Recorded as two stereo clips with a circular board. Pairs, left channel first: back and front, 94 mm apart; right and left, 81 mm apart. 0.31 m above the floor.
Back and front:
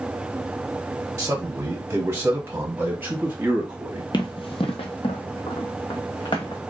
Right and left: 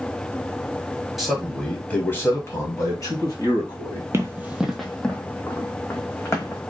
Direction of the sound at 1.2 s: 5° left.